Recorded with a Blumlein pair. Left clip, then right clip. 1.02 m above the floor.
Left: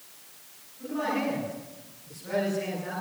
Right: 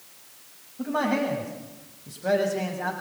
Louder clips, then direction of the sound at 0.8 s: Right 4 dB; 50° right.